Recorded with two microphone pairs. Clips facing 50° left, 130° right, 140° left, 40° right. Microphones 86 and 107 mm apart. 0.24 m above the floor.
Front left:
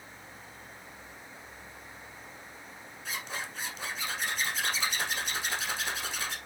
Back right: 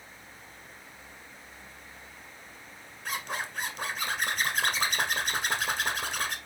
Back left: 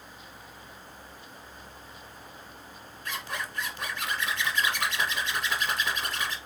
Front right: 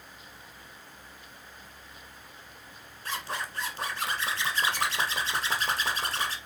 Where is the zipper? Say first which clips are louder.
Back right 4 dB, front right 1 dB; 95° right, 1.3 m.